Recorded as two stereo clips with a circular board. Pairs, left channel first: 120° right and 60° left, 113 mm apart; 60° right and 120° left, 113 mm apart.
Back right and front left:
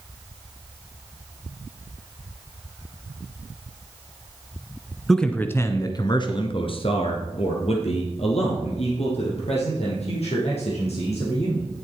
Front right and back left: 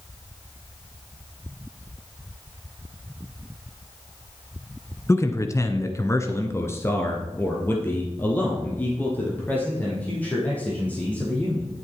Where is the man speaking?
35° right, 1.1 m; by 11.7 s 135° right, 6 m.